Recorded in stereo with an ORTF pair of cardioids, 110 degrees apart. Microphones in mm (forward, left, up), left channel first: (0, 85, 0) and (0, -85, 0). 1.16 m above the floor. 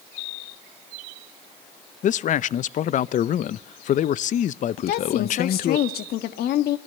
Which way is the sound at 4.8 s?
65° left.